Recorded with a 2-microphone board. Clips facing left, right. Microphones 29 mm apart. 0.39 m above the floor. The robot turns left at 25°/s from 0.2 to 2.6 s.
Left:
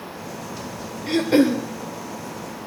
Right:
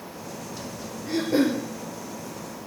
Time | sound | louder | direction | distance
1.1 | throat clearing | left 5 dB | 80° left | 1.4 m